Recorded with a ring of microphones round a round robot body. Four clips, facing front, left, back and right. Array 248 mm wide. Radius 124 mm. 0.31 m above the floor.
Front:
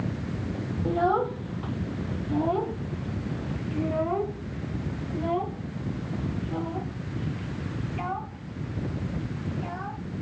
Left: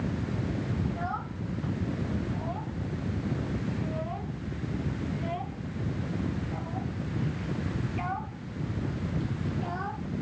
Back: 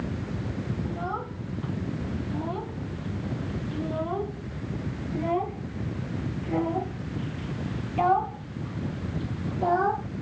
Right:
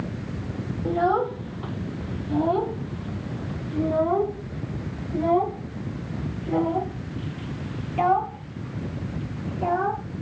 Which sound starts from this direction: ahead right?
A child speaking, at 0.8 s.